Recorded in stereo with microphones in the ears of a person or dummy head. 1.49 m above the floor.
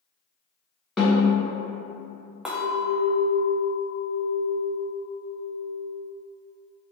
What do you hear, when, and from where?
1.0 s a snare drum: 5° left (ahead or behind), 1.4 m
2.5 s a clink: 5° right (ahead or behind), 0.6 m